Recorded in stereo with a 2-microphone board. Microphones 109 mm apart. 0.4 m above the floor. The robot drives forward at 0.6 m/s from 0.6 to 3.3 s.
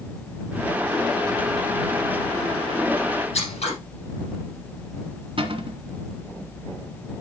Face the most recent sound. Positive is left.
turn(degrees=-55)  # may be behind; listen again after turning